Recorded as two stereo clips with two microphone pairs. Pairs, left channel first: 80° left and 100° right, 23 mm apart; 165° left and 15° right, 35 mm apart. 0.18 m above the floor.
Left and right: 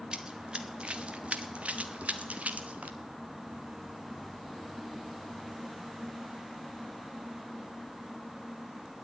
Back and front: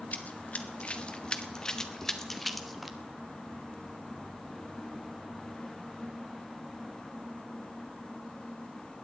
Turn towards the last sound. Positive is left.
turn(degrees=-95)